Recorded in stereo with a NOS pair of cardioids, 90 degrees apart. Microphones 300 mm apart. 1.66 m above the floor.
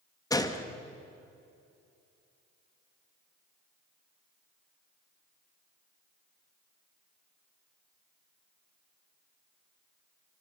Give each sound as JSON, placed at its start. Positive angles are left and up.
{"t": 0.3, "sound": "a gunshot", "azimuth_deg": 10, "distance_m": 2.0}